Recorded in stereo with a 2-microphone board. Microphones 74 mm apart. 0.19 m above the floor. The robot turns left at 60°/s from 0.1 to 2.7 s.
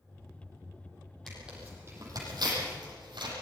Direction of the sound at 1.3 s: 5° left (ahead or behind).